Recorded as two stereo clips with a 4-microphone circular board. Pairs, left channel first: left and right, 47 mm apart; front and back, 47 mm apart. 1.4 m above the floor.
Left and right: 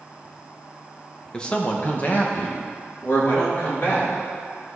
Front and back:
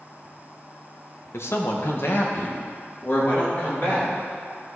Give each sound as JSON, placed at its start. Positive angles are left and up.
{"t": 1.3, "sound": "a man speaking", "azimuth_deg": 20, "distance_m": 1.0}